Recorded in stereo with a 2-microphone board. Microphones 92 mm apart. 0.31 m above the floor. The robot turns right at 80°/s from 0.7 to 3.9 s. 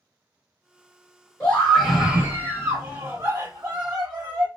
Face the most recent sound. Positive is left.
turn(degrees=-5)  # may be behind; listen again after turning